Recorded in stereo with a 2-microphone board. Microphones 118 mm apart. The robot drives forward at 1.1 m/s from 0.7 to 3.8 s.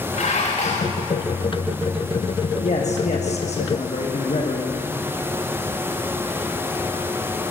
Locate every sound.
0.1 s dishes clattering: 70° left (ahead or behind), 8 m
2.6 s a man speaking: 70° left (ahead or behind), 6 m; by 4.7 s 60° left (ahead or behind), 6.5 m